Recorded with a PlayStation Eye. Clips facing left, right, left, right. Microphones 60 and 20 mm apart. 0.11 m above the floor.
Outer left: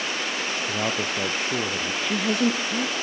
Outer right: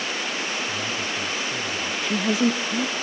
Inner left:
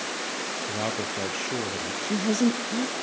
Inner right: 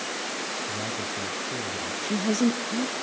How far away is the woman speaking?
About 1.3 m.